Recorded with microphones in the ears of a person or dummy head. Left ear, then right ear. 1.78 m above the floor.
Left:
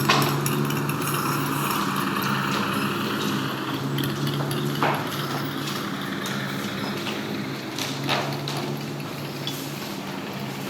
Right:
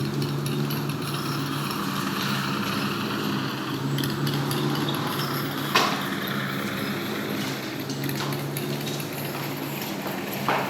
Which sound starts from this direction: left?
A motorcycle, at 0.0 s.